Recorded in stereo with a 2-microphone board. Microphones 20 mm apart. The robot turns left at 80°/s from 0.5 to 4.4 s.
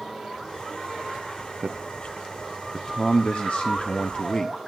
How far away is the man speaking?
About 0.5 m.